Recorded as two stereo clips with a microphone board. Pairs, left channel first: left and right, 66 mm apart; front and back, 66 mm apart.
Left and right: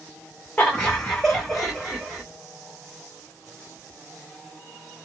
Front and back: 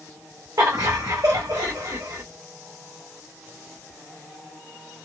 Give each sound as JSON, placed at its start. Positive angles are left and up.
{"t": 0.6, "sound": "laughter", "azimuth_deg": 150, "distance_m": 0.9}